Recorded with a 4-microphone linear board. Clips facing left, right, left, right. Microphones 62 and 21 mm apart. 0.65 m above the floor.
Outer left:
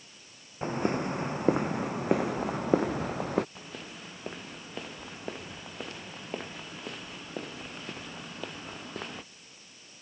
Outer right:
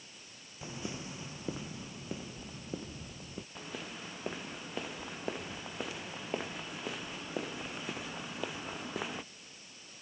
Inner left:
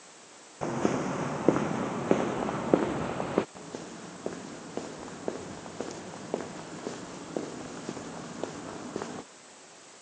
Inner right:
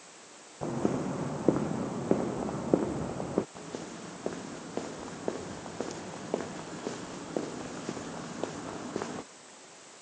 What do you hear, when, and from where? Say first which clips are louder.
0.6 s footsteps: outer left 13 dB, inner left 2 dB; 50° left (ahead or behind); by 3.5 s 75° left (ahead or behind)
3.5 s footsteps: even, even; centre (ahead or behind); by 9.3 s 5° right (ahead or behind)